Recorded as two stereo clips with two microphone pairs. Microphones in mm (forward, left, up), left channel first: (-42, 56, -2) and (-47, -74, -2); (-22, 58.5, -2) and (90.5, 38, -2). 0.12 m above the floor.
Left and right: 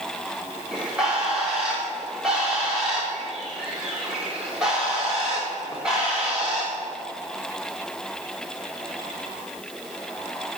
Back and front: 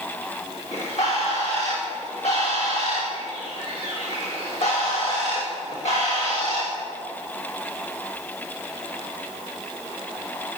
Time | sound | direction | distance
0.7 | a bird | straight behind | 5.5 m